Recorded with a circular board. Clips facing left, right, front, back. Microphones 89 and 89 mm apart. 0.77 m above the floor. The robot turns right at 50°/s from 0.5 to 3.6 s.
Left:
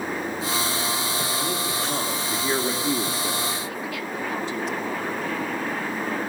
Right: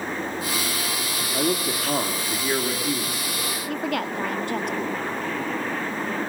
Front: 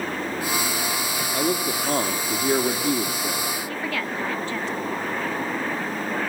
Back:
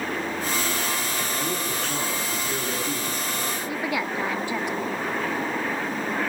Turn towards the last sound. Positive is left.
turn(degrees=-110)